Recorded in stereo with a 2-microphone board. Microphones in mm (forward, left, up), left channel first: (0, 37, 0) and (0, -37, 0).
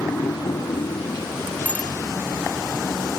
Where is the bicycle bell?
20° left (ahead or behind).